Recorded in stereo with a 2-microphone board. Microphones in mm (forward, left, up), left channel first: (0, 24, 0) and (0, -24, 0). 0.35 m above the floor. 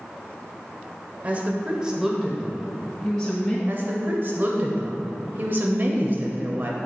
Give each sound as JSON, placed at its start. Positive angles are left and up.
{"t": 1.2, "sound": "a woman speaking", "side_deg": -30, "distance_m": 1.1}
{"t": 3.7, "sound": "a woman speaking", "side_deg": -40, "distance_m": 1.1}